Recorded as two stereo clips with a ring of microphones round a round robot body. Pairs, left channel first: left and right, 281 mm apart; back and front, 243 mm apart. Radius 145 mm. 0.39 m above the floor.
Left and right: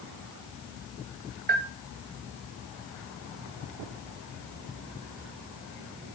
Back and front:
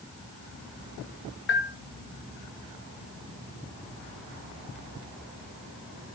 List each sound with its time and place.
1.5 s a bell: 145° right, 0.9 m